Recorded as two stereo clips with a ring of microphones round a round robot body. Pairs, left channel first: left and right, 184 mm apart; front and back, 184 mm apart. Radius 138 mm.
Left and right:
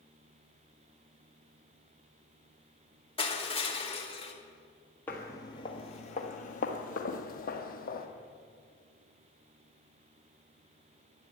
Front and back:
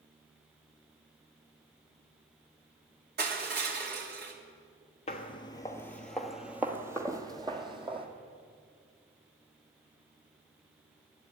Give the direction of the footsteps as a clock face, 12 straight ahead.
12 o'clock.